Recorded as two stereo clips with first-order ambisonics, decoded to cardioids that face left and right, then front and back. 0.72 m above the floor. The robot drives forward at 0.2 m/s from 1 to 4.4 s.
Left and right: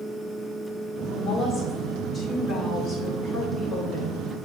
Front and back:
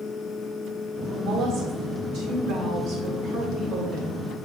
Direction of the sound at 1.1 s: 155° left.